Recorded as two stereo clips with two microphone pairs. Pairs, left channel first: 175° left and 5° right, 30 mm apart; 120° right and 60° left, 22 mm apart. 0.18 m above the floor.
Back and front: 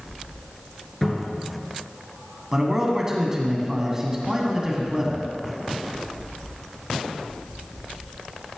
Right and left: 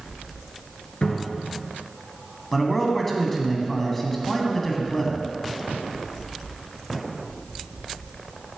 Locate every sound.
1.0 s a cupboard door: 105° right, 2.5 m
2.5 s a man speaking: 55° right, 1.7 m